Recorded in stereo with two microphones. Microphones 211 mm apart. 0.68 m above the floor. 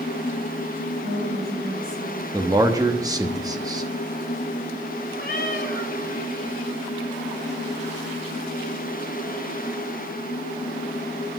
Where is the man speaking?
20° right (ahead or behind), 1.0 m.